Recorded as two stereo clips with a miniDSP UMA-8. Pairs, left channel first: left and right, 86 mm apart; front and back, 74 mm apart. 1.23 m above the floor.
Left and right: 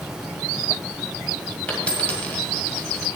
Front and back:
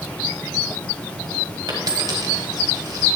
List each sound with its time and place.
1.7 s a dropped coin: 160° left, 1.9 m